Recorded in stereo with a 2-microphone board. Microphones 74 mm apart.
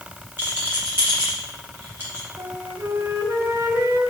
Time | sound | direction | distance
0.4 | a rattle | 30° right (ahead or behind) | 4 m
2.4 | a flute | 40° right (ahead or behind) | 1.8 m